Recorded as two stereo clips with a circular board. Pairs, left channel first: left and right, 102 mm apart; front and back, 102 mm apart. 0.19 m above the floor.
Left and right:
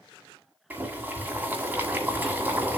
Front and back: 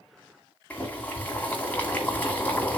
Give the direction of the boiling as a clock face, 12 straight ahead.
2 o'clock.